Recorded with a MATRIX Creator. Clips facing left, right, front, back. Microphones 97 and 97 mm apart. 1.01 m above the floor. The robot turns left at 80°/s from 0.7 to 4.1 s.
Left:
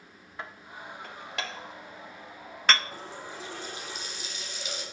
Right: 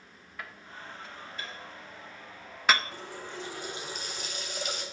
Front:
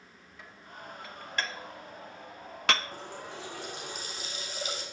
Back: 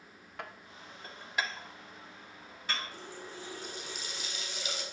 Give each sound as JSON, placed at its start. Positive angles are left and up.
{"t": 0.4, "sound": "dishes clattering", "azimuth_deg": 155, "distance_m": 0.5}
{"t": 2.9, "sound": "a running tap", "azimuth_deg": 45, "distance_m": 3.0}